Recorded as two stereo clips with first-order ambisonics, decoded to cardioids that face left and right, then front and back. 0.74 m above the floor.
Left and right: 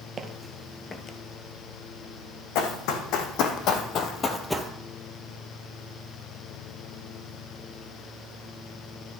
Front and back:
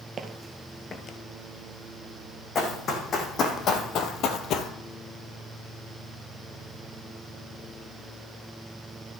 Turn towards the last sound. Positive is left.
turn(degrees=-20)